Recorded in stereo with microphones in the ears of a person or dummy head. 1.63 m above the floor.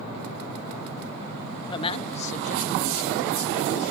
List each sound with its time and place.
1.7 s a man speaking: 25° left (ahead or behind); by 3.9 s 55° left (ahead or behind)